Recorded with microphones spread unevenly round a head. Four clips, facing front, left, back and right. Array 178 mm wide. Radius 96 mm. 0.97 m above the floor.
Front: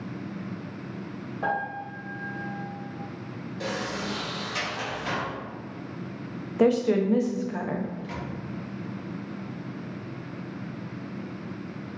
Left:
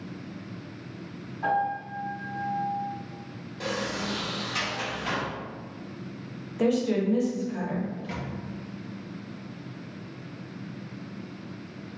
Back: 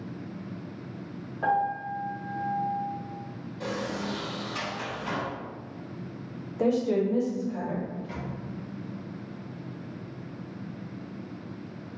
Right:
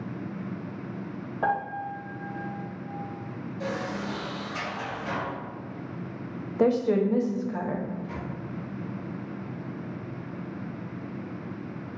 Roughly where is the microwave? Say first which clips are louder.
Even, front 1 dB; ahead left.